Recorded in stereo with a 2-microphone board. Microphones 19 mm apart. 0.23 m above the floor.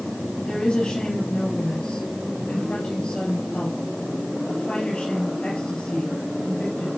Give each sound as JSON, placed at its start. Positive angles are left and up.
{"t": 0.5, "sound": "a woman speaking", "side_deg": 70, "distance_m": 4.0}